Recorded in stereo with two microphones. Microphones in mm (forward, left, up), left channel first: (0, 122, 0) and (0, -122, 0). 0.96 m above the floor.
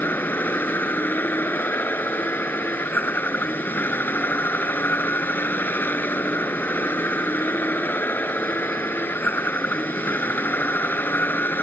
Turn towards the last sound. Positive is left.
turn(degrees=10)  # may be behind; listen again after turning